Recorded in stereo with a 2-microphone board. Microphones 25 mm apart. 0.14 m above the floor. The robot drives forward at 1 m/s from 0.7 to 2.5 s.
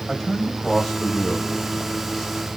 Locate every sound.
0.1 s a man speaking: 20° left (ahead or behind), 6 m; by 2.5 s 15° left (ahead or behind), 8 m